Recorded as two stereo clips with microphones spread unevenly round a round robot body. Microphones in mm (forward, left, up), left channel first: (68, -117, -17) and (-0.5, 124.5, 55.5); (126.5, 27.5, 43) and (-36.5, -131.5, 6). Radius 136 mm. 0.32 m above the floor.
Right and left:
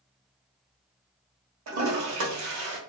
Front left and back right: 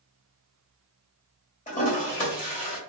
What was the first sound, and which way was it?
A toilet flushing, 100° left.